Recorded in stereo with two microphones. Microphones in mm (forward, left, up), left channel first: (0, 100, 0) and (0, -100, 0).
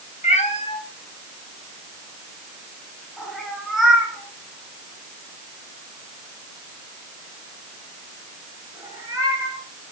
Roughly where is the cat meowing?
Left.